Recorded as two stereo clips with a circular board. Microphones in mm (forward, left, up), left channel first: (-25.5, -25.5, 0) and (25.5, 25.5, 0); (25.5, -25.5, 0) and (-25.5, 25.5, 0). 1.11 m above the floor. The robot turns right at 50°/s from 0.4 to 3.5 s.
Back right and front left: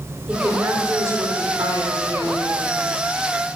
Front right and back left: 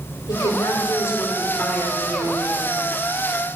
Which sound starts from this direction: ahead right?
A woman speaking, at 0.3 s.